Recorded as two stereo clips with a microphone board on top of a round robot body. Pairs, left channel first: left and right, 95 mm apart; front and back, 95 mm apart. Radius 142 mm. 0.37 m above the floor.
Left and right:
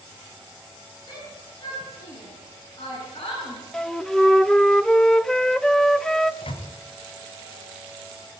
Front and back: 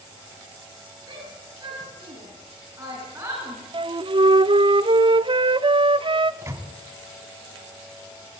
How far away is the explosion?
No explosion in this recording.